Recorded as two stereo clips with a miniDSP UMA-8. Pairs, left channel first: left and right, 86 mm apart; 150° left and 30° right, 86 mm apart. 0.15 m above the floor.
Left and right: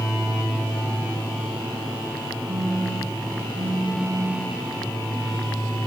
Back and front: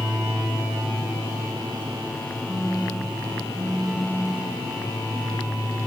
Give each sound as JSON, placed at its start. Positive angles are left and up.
{"t": 2.5, "sound": "a phone buzzing", "azimuth_deg": -95, "distance_m": 7.0}